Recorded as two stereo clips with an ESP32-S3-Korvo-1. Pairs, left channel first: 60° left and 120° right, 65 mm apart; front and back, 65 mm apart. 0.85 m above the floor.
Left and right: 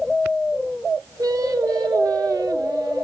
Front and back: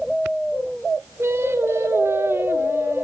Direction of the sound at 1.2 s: 130° right.